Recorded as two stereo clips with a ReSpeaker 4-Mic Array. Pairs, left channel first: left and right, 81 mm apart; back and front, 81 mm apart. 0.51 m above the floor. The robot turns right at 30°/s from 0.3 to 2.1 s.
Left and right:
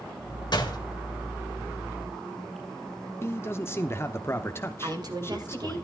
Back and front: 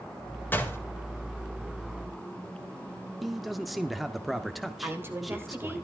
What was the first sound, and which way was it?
A door slam, 115° left.